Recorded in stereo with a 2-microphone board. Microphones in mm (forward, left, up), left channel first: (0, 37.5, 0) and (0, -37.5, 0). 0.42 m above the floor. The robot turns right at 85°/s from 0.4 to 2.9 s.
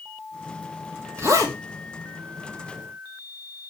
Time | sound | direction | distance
1.2 | a zipper | 125° right | 2.5 m